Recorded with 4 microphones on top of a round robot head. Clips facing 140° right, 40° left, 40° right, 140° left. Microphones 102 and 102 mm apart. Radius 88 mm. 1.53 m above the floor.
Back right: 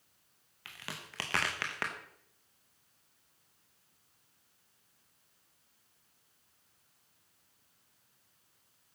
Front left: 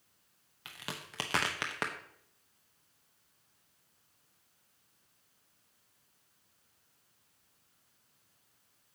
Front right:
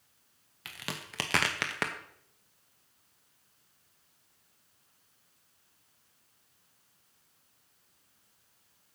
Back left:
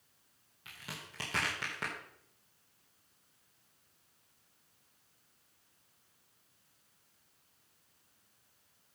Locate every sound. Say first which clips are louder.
0.7 s a crack: front left 2 dB, front right 6 dB; 25° right, 0.8 m